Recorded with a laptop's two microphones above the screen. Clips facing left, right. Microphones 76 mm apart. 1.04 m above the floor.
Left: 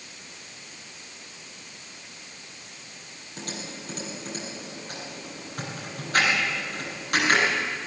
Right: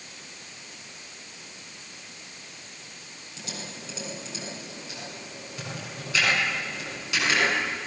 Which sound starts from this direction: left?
Typing on a keyboard, at 3.4 s.